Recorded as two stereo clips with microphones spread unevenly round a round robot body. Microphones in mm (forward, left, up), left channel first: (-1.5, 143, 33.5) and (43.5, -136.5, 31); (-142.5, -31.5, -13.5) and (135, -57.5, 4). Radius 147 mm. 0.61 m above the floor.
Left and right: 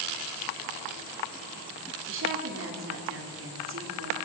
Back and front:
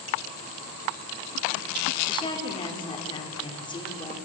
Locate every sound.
2.1 s a woman speaking: 115° right, 1.9 m